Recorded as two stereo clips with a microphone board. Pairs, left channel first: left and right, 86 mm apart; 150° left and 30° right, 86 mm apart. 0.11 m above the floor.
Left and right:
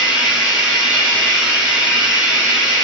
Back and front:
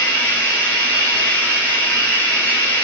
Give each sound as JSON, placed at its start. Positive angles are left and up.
{"t": 0.0, "sound": "running water", "azimuth_deg": -165, "distance_m": 0.9}